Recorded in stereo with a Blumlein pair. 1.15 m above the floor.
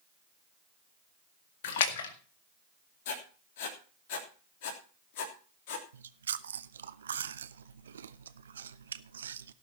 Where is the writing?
50° left, 3 m.